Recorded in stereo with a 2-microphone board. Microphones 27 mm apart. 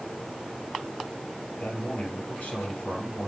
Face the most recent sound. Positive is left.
turn(degrees=70)  # may be behind; listen again after turning